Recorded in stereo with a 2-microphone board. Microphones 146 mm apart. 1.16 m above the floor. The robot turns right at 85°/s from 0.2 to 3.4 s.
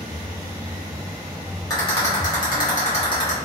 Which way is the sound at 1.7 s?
20° left (ahead or behind).